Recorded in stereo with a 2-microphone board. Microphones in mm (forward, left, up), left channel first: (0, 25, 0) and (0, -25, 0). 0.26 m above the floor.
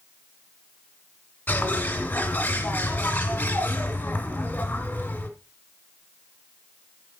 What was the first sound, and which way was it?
A bird, 40° left (ahead or behind).